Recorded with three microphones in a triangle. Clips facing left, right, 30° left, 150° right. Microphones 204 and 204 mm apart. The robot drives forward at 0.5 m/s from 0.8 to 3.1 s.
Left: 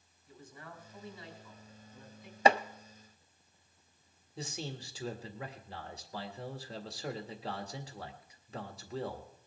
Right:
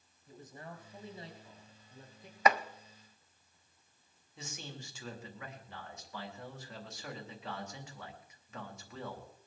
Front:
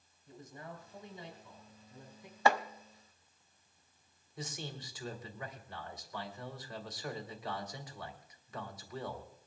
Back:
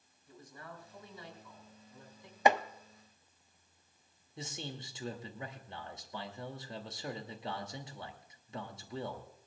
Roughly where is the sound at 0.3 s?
Ahead right.